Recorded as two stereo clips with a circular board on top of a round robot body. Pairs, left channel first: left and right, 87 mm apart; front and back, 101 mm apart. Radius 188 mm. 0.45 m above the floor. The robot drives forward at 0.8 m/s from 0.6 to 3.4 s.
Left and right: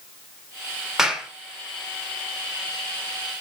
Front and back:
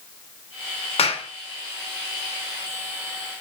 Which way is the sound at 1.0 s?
5° right.